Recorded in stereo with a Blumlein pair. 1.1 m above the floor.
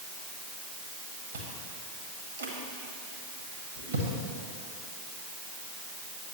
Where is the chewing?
65° right, 1.4 m.